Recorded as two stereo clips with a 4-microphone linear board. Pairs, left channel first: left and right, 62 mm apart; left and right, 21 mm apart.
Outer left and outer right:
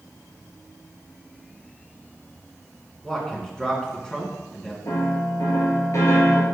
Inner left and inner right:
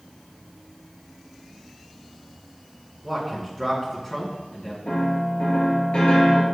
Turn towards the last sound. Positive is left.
turn(degrees=55)  # may be behind; listen again after turning